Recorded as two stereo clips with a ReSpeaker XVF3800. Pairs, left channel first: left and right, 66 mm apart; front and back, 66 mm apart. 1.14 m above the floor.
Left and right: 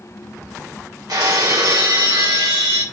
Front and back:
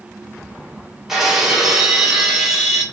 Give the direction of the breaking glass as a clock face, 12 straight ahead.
3 o'clock.